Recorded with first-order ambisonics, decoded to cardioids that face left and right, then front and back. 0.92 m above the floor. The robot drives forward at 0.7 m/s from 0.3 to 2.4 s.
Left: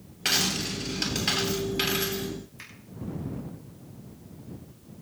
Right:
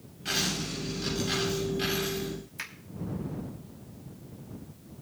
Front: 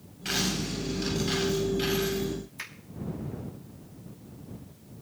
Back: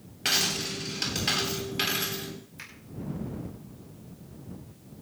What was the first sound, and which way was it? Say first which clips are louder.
A dropped coin: left 4 dB, back 4 dB; 130° left.